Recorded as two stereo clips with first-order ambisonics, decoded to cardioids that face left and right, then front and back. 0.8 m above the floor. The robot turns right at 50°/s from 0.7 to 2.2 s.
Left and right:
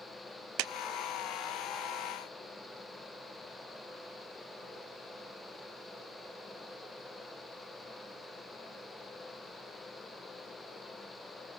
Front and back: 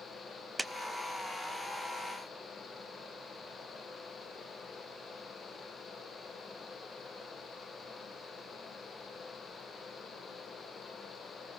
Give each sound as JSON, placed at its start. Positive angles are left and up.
{"t": 0.6, "sound": "a clap", "azimuth_deg": -95, "distance_m": 0.6}